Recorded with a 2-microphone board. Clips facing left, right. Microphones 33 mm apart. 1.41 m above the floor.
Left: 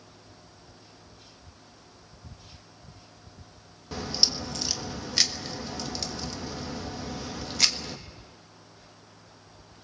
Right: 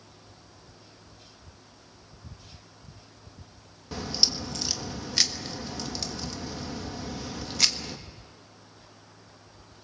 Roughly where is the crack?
Centre.